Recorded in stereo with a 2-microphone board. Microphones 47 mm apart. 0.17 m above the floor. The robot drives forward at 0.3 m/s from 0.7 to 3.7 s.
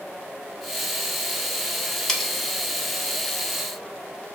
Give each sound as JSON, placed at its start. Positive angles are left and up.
{"t": 2.1, "sound": "cutlery clinking", "side_deg": 10, "distance_m": 0.6}